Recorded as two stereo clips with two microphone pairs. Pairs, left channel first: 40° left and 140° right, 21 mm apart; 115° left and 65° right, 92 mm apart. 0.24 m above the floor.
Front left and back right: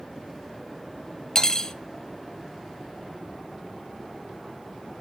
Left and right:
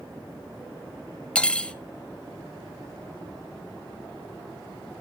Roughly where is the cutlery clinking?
Ahead left.